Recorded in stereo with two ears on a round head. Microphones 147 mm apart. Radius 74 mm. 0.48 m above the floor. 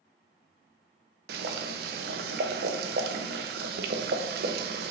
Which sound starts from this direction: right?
Boiling, at 1.3 s.